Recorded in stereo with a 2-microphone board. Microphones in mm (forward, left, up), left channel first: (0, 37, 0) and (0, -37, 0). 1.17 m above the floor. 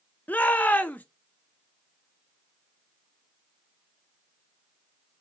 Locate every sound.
0.3 s a shout: 25° left (ahead or behind), 0.6 m